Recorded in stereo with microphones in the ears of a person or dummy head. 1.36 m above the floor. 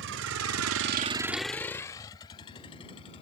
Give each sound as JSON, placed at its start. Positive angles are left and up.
{"t": 0.0, "sound": "a vehicle", "side_deg": -60}